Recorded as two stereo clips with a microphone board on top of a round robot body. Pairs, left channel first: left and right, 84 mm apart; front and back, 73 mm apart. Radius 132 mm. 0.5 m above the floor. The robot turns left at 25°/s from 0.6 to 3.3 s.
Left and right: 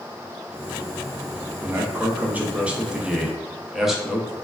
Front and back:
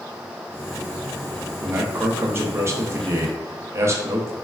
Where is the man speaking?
130° right, 0.7 m; by 4.3 s 175° right, 0.7 m.